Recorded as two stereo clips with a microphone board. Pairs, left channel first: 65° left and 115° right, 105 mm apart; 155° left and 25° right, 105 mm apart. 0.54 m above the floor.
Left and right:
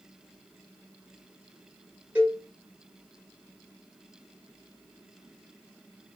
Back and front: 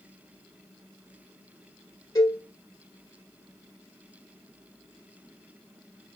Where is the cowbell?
Straight behind, 1.4 m.